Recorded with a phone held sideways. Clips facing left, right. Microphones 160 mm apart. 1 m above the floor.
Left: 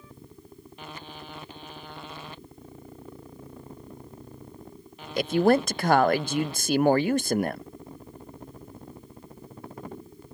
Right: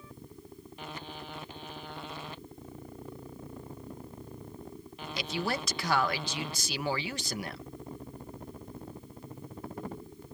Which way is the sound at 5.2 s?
50° left (ahead or behind).